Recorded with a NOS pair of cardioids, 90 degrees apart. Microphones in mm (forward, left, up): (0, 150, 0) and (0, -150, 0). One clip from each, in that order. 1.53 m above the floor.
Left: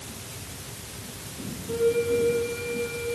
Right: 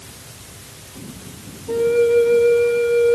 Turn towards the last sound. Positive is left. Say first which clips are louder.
# right 8 dB
turn(degrees=-55)